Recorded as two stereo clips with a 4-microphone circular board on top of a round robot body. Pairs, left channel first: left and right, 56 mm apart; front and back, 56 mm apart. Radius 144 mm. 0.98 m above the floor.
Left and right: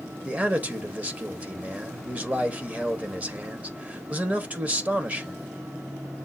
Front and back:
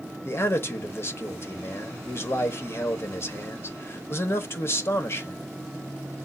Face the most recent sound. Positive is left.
turn(degrees=-30)